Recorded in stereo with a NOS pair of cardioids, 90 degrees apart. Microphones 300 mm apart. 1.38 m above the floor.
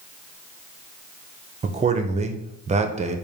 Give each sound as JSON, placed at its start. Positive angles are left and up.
{"t": 1.6, "sound": "a man speaking", "azimuth_deg": -25, "distance_m": 0.7}